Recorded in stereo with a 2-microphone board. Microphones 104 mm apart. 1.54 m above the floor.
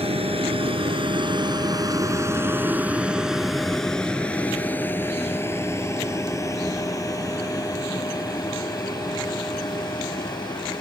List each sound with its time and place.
0.0 s a vehicle: 70° right (ahead or behind); by 10.8 s 45° left (ahead or behind)